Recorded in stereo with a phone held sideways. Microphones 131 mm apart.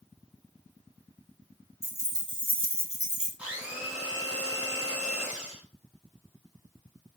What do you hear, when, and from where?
1.8 s keys jangling: 20° right (ahead or behind), 1.1 m; by 3.3 s 65° right (ahead or behind), 1.1 m
3.4 s a blender: 10° right (ahead or behind), 1.6 m